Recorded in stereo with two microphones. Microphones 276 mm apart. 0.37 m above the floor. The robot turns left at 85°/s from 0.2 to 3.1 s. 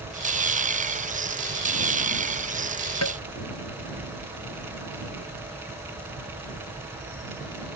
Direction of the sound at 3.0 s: 70° left (ahead or behind).